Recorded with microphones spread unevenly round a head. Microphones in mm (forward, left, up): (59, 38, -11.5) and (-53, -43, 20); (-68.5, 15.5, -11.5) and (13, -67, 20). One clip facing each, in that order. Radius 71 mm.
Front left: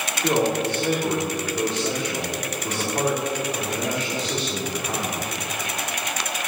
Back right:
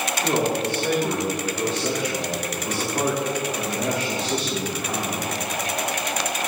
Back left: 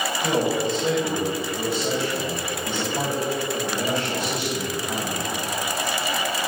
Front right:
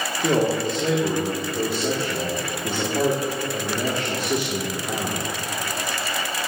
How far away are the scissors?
I don't hear scissors.